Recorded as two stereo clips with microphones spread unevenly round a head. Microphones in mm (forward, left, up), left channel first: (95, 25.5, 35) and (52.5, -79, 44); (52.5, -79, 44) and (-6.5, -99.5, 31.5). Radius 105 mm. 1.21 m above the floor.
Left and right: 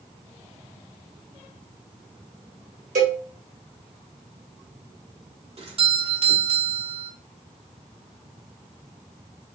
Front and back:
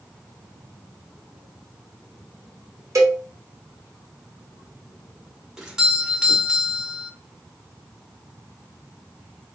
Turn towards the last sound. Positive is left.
turn(degrees=-90)